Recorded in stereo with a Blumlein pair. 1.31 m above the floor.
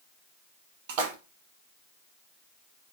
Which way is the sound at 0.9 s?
50° right.